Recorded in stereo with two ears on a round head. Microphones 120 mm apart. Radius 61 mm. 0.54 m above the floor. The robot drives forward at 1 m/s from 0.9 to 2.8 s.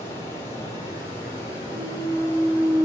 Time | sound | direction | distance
0.0 | running water | 50° left (ahead or behind) | 4 m
1.7 | a clunk | centre (ahead or behind) | 3.5 m